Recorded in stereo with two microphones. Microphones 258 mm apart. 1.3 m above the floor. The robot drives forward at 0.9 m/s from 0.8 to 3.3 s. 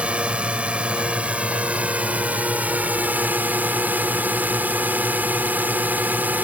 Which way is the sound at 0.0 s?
5° right (ahead or behind).